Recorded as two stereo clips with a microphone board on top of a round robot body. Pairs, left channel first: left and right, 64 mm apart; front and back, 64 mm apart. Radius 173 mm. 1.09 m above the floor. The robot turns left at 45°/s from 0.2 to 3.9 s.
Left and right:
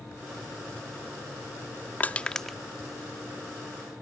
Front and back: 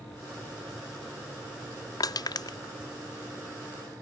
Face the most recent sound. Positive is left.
turn(degrees=-60)